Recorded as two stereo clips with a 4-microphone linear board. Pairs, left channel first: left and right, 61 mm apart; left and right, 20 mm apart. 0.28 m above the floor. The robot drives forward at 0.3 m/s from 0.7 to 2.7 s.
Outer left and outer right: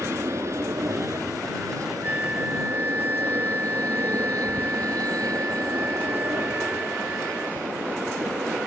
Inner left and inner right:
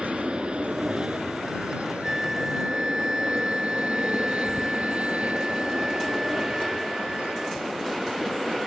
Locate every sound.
0.0 s an aircraft: 50° right (ahead or behind); by 8.7 s 80° right
2.0 s a flute: 25° right (ahead or behind); by 7.6 s 30° right (ahead or behind)